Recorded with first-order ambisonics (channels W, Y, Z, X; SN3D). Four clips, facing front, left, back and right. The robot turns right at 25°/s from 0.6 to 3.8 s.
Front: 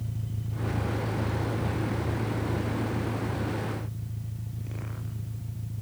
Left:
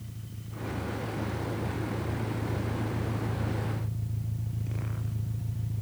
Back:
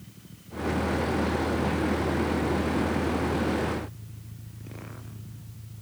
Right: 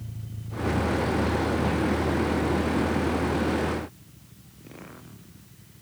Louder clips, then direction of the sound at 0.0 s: Right 4 dB, front 11 dB; 15° right.